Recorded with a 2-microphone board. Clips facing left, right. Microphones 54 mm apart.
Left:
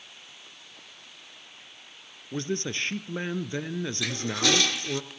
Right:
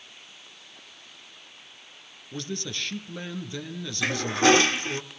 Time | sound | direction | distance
2.3 | a man speaking | 35° left (ahead or behind) | 1.4 m
4.0 | a toilet flushing | 35° right (ahead or behind) | 0.8 m